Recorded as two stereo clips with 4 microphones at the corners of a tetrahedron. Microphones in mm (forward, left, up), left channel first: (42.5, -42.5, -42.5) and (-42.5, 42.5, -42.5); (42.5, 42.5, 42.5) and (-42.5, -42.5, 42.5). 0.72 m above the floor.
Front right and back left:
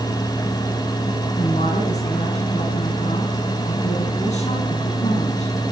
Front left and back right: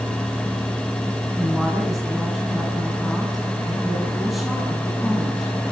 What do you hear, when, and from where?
1.4 s a woman speaking: 50° right, 6.5 m